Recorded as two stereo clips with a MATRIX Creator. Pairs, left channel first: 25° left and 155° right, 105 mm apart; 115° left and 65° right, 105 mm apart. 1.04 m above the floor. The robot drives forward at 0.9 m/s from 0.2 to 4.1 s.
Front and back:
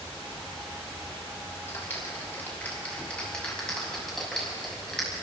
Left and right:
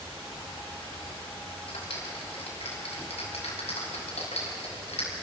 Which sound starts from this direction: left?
A clap, at 1.7 s.